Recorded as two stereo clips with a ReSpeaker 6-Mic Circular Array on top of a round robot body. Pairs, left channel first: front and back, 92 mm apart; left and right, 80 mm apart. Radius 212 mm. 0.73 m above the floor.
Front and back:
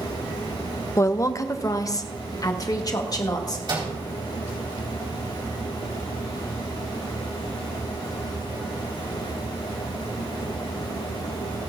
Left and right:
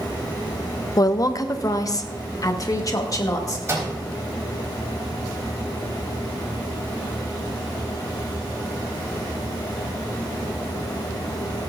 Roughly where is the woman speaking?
Ahead left.